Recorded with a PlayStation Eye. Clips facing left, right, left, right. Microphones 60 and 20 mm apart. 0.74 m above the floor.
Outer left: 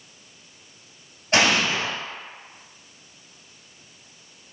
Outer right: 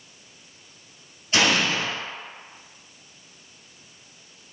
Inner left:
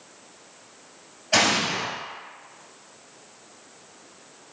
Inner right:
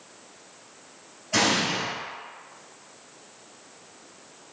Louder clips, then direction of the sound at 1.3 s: Outer left 1 dB, inner left 2 dB; 60° left (ahead or behind).